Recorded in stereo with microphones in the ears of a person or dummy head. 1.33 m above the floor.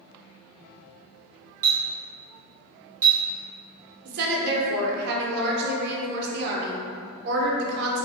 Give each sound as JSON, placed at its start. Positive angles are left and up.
{"t": 1.6, "sound": "a clink", "side_deg": -15, "distance_m": 0.7}
{"t": 4.0, "sound": "a woman speaking", "side_deg": -55, "distance_m": 0.7}